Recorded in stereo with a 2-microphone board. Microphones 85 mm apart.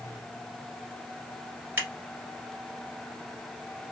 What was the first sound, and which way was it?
Scissors, 25° right (ahead or behind).